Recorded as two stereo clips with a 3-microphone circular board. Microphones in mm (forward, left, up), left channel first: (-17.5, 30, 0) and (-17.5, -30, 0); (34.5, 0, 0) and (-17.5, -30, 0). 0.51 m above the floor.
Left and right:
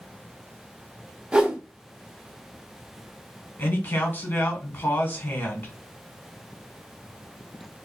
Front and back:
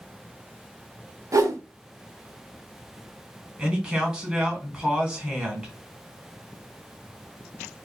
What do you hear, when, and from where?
1.3 s a whoosh: 165° right, 0.6 m
3.6 s a man speaking: 135° left, 1.6 m